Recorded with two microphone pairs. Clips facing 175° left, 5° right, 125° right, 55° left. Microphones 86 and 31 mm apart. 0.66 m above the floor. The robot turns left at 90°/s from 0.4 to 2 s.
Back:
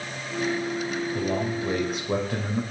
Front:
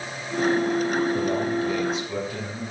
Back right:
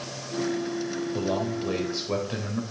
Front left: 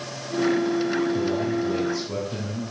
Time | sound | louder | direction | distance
1.1 | a man speaking | front 3 dB, front left 4 dB | 80° right | 2.5 m